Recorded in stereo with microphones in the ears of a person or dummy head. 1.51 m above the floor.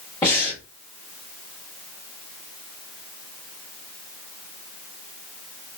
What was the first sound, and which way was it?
Breathing, 20° left (ahead or behind).